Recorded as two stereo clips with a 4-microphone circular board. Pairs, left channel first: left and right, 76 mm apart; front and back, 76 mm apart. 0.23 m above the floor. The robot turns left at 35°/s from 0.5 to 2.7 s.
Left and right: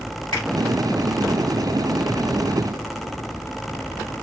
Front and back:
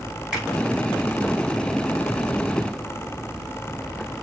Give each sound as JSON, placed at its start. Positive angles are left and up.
{"t": 0.3, "sound": "a finger snap", "azimuth_deg": 100, "distance_m": 3.0}